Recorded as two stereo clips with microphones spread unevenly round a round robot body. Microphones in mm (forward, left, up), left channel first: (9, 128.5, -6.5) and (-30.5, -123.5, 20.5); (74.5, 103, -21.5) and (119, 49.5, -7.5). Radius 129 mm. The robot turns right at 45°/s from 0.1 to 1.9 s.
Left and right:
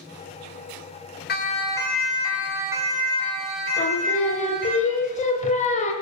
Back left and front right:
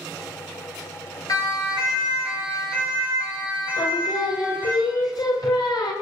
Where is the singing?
140° left, 2.5 m.